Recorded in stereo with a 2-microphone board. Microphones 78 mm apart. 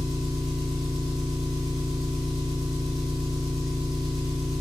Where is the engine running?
Centre (ahead or behind), 1.3 m.